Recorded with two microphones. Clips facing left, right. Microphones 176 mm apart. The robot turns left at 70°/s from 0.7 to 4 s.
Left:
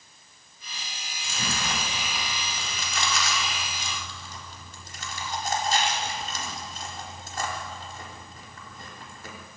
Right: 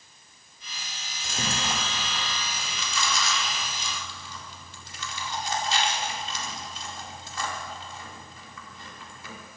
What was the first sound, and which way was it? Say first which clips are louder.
Chewing: right 1 dB; 60° right (ahead or behind).